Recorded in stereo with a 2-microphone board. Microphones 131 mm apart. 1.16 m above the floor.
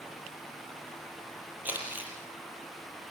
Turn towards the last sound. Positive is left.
turn(degrees=-15)  # may be behind; listen again after turning